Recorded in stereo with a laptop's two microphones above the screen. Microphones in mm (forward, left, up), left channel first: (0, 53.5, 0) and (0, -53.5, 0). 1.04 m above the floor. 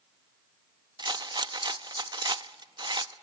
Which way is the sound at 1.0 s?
45° right (ahead or behind).